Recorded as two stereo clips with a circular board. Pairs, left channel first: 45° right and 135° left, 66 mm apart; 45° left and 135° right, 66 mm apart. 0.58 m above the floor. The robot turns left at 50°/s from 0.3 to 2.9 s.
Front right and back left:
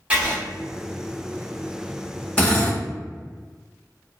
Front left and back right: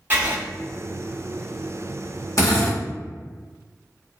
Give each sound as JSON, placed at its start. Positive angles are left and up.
{"t": 0.1, "sound": "writing", "azimuth_deg": -175, "distance_m": 1.1}
{"t": 2.4, "sound": "a drill", "azimuth_deg": 20, "distance_m": 1.2}